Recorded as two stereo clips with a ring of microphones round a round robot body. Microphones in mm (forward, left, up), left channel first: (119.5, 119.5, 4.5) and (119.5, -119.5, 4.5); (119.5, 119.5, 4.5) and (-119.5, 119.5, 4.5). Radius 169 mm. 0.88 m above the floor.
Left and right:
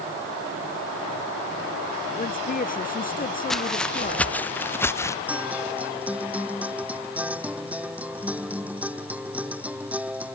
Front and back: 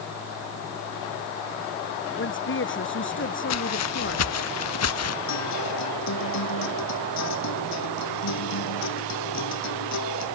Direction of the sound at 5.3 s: 5° right.